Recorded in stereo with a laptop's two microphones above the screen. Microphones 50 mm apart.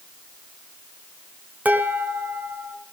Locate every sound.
1.6 s dishes clattering: 35° right (ahead or behind), 3 m